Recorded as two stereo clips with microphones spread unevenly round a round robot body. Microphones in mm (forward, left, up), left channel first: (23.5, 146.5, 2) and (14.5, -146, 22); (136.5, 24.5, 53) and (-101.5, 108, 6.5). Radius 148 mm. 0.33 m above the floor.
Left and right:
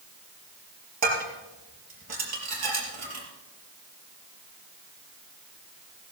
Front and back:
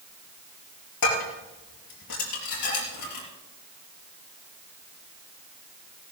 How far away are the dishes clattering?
About 5 m.